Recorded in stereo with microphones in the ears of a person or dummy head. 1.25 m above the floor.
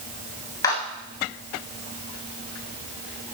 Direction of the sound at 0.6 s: 20° left (ahead or behind).